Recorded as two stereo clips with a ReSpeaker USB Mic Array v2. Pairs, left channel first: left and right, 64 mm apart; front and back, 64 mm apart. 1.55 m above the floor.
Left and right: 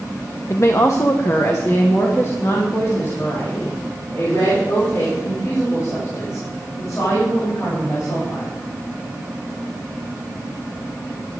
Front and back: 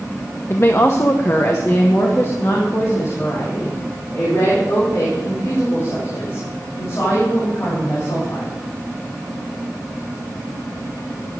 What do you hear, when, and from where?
0.5 s a woman speaking: 50° left, 0.7 m; by 8.5 s 45° left, 8 m